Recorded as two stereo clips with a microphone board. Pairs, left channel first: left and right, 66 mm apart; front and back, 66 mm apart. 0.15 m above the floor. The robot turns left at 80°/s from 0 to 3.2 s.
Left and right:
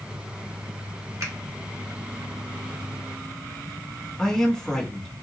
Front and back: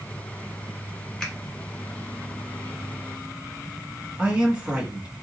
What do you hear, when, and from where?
1.2 s a finger snap: 70° right, 1.3 m; by 1.3 s 80° right, 1.3 m
4.2 s a man speaking: 155° left, 1.0 m